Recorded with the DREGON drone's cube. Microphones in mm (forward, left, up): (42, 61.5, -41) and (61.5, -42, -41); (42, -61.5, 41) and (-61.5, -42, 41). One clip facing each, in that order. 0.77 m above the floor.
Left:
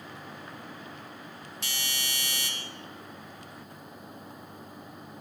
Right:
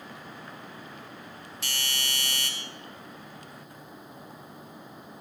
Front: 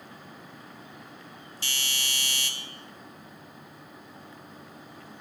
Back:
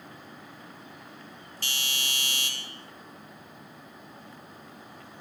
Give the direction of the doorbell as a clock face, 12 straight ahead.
6 o'clock.